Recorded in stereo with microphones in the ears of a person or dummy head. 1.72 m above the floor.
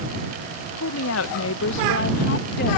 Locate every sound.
0.8 s a woman speaking: 75° left (ahead or behind); by 2.8 s 55° left (ahead or behind)